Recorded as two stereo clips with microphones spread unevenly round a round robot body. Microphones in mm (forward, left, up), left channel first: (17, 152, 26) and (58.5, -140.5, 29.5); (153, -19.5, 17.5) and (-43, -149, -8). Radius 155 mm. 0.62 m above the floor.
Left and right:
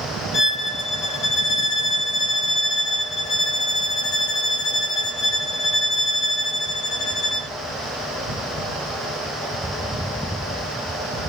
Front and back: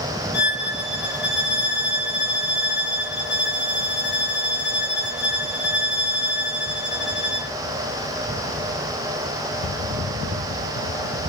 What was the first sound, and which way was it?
A violin, 70° left.